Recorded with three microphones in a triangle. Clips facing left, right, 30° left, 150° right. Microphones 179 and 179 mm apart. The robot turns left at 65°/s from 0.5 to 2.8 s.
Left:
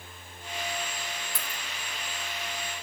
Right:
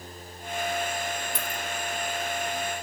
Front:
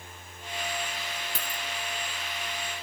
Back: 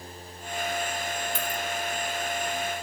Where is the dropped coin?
20° right, 0.9 m; by 1.6 s 40° right, 0.9 m.